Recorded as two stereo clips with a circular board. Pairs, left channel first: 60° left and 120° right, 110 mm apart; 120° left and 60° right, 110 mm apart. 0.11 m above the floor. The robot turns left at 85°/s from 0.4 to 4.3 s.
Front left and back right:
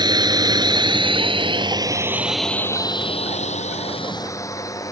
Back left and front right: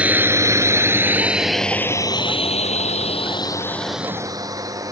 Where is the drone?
130° right; by 4.9 s straight ahead.